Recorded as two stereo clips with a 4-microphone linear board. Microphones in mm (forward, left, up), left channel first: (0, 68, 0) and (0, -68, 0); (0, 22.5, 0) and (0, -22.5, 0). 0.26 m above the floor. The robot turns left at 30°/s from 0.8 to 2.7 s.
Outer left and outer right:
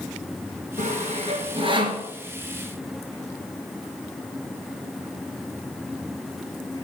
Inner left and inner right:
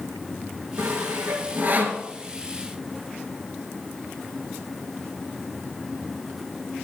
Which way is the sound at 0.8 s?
65° right (ahead or behind).